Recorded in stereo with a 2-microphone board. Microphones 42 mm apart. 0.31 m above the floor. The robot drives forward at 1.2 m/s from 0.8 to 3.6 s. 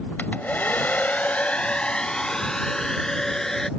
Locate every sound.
0.2 s a hair dryer: 45° left (ahead or behind); by 3.7 s 10° left (ahead or behind)